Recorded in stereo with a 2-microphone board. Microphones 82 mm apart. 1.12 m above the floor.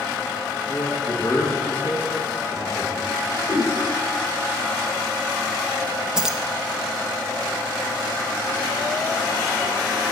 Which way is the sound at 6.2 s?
10° right (ahead or behind).